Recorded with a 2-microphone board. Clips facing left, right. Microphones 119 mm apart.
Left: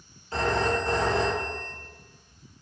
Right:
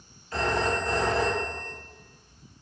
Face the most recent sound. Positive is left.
turn(degrees=25)  # may be behind; listen again after turning